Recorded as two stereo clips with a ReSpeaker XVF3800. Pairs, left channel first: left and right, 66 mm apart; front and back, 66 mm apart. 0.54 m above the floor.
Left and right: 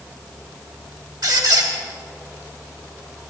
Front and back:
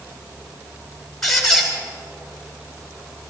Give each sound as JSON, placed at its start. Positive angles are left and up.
{"t": 1.2, "sound": "a squeak", "azimuth_deg": -85, "distance_m": 2.0}